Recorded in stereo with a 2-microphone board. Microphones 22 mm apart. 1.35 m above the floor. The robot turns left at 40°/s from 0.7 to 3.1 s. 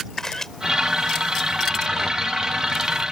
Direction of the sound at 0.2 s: 20° left (ahead or behind).